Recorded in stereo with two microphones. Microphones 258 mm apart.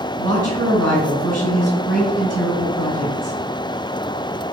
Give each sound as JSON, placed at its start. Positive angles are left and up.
{"t": 0.2, "sound": "a woman speaking", "side_deg": -70, "distance_m": 1.9}